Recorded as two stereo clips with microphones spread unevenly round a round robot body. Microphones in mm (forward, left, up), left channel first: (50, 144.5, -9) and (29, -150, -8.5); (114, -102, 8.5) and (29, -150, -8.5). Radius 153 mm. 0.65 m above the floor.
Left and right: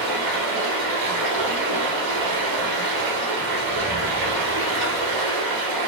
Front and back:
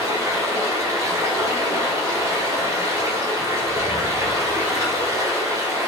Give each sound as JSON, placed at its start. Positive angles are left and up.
{"t": 0.0, "sound": "running water", "azimuth_deg": -85, "distance_m": 1.7}